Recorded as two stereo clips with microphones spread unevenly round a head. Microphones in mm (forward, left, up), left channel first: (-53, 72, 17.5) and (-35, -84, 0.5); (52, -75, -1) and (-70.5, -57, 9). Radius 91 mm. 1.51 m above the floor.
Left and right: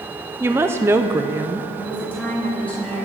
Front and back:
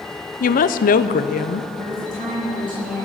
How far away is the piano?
No piano in this recording.